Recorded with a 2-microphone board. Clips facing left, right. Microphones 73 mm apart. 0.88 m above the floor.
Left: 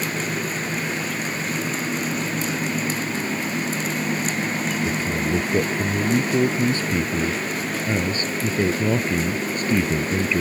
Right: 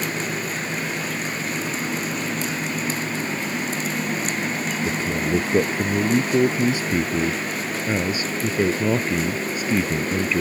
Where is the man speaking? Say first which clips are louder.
Even; 20° right (ahead or behind); by 10.4 s 5° right (ahead or behind).